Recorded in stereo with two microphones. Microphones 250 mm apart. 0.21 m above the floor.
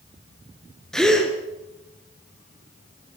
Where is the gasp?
Centre (ahead or behind), 3 m.